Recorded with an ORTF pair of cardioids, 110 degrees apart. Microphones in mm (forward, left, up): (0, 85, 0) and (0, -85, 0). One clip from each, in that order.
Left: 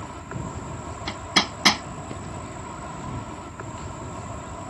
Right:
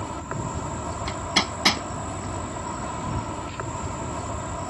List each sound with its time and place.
0.0 s an insect: 35° right
1.1 s hammering: 10° left